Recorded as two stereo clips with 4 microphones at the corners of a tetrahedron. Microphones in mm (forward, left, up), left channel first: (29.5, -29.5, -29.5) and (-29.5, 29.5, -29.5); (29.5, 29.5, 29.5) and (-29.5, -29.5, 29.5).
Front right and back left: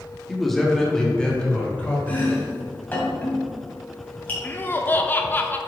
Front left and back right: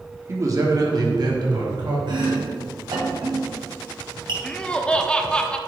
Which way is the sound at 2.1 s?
115° right.